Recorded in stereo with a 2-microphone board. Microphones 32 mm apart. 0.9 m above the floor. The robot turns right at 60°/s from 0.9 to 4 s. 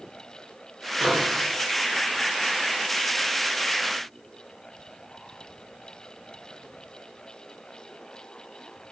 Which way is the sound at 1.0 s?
Centre (ahead or behind).